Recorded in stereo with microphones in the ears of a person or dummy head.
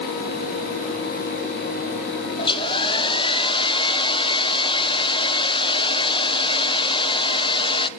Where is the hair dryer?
25° left (ahead or behind), 1.0 m.